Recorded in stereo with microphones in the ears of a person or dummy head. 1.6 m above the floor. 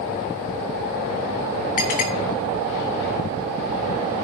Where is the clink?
50° left (ahead or behind), 2 m.